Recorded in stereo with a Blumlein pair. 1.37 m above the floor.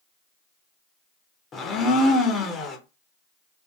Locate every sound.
1.5 s a blender: 20° left, 0.6 m